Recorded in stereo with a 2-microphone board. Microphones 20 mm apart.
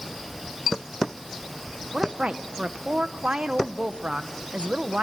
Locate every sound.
1.9 s a woman speaking: 75° right (ahead or behind), 1.2 m